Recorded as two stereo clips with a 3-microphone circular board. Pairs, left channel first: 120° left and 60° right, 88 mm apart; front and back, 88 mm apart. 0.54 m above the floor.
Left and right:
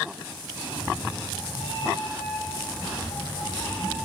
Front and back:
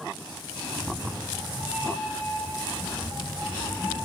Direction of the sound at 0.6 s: 105° left.